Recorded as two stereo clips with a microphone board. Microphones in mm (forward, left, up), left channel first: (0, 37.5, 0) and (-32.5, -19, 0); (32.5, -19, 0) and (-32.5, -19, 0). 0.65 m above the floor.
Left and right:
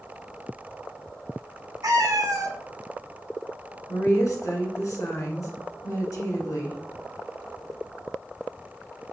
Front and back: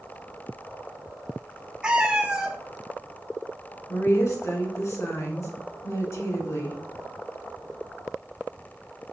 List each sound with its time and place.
1.8 s a cat meowing: 105° right, 0.7 m
3.9 s a woman speaking: 30° left, 2 m